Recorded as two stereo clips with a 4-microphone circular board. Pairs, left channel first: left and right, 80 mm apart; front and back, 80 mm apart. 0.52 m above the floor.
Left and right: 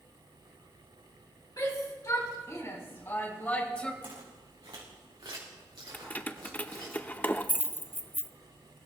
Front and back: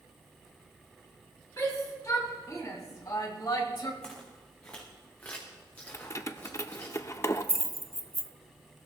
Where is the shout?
45° left, 4.5 m; by 3.9 s 10° left, 2 m.